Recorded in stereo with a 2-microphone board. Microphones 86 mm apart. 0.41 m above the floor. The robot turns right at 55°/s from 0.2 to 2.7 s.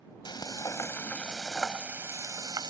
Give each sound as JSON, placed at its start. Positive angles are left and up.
{"t": 0.2, "sound": "frying", "azimuth_deg": 110}